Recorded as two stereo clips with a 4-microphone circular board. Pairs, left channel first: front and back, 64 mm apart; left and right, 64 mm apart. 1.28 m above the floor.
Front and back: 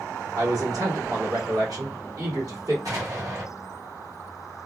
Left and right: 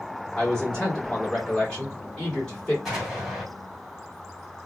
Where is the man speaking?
165° left, 2.5 m.